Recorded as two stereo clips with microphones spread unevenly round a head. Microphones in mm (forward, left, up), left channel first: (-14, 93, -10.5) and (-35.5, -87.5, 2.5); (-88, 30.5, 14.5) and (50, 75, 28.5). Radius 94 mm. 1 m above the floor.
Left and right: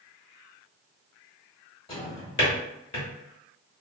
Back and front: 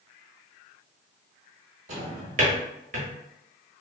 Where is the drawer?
20° left, 0.9 m.